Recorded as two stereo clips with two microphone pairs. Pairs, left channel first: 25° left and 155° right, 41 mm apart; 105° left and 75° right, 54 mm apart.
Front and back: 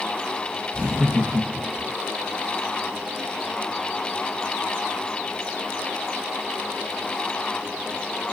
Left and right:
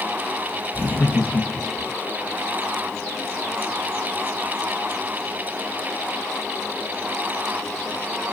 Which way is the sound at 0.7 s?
140° left.